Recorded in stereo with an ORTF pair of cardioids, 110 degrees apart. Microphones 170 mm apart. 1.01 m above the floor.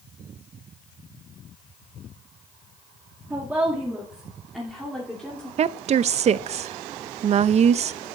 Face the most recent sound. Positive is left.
turn(degrees=-40)